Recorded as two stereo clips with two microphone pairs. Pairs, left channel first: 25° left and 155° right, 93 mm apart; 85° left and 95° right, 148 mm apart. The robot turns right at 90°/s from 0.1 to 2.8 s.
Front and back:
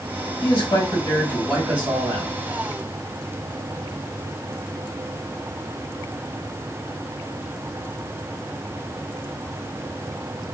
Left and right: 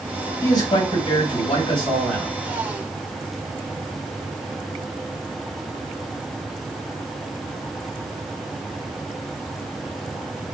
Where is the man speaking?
15° left, 1.9 m; by 2.3 s 175° right, 1.9 m.